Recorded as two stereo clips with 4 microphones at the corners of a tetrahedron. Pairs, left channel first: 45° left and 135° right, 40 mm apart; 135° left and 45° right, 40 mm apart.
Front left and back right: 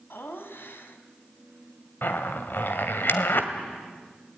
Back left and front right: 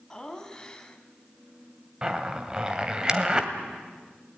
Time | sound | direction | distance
0.1 | laughter | 60° left | 3 m
2.0 | a zipper | 25° left | 2.0 m